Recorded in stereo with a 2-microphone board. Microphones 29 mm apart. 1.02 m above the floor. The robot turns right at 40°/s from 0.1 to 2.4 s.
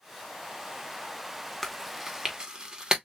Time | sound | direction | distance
1.6 | chewing | 5° left (ahead or behind) | 1.0 m